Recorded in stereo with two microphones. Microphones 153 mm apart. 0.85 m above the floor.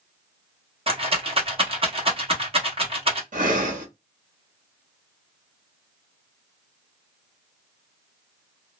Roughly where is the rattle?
Right.